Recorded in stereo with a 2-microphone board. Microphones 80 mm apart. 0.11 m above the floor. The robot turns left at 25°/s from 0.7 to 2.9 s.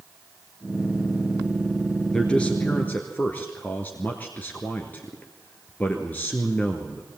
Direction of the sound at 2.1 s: 10° left (ahead or behind).